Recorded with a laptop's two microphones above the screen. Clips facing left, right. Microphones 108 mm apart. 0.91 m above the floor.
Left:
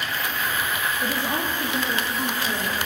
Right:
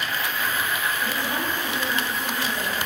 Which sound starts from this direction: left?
A woman speaking, at 1.0 s.